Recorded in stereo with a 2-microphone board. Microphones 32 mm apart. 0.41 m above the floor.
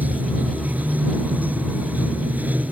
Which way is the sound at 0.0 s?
65° right (ahead or behind).